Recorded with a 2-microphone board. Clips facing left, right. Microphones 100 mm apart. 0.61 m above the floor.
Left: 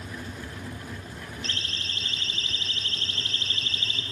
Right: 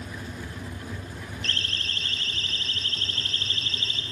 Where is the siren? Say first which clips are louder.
Right 2 dB; 60° right (ahead or behind), 3.5 m; by 4.0 s 35° right (ahead or behind), 5 m.